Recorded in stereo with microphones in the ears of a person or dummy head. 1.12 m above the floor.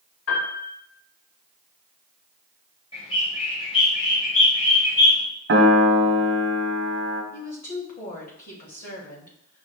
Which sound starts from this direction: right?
A piano, at 5.5 s.